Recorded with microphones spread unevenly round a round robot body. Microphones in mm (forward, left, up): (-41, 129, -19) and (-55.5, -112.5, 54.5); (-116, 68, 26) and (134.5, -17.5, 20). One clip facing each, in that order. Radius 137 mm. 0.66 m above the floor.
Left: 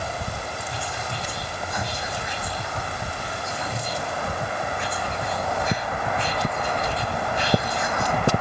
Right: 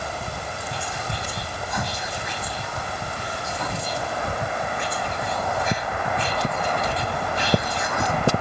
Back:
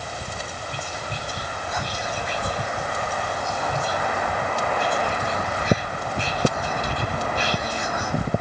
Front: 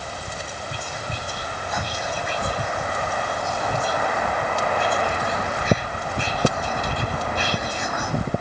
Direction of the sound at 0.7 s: 55° right.